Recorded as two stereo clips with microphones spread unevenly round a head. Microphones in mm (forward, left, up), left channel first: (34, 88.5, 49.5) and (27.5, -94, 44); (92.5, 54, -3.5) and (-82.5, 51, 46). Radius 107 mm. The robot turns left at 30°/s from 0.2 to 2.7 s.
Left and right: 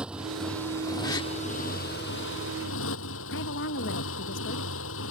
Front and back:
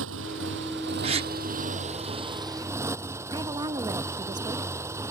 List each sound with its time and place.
0.0 s a motorcycle: straight behind; by 5.1 s 105° left
1.0 s a gasp: 160° left; by 1.3 s 150° left
3.3 s a woman speaking: 110° left